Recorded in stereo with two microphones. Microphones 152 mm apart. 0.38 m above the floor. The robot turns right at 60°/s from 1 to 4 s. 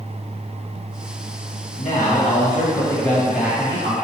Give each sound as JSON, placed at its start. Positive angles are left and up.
{"t": 1.8, "sound": "a man speaking", "azimuth_deg": 90, "distance_m": 2.5}